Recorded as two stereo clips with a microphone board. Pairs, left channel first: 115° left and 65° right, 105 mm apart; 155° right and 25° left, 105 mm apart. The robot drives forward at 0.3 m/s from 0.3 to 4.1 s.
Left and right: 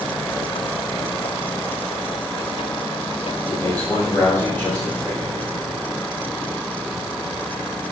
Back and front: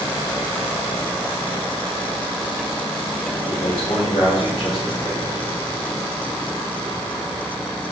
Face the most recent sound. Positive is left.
turn(degrees=-175)